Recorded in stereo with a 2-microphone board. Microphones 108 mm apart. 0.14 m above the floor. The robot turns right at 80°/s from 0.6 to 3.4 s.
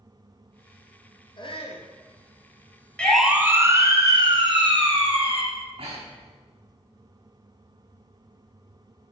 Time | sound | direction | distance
1.4 | a shout | 55° left | 3 m
3.0 | a siren | 10° left (ahead or behind) | 2.5 m
5.5 | breathing | 60° right (ahead or behind) | 7 m